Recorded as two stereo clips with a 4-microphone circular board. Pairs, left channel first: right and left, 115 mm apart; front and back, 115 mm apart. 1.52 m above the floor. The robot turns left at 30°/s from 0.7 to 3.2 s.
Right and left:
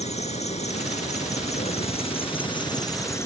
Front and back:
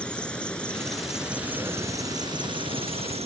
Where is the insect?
80° right; by 3.3 s 155° right.